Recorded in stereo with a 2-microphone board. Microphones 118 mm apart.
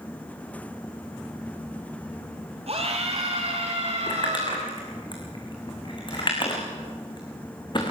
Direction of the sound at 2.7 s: 60° right (ahead or behind).